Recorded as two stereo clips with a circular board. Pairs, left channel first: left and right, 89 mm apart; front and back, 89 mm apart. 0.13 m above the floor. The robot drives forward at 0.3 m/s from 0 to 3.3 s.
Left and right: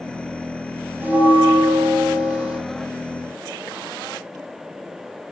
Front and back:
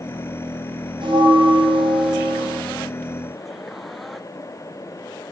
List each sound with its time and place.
1.0 s a bell: 160° right, 0.7 m; by 2.6 s 170° right, 1.1 m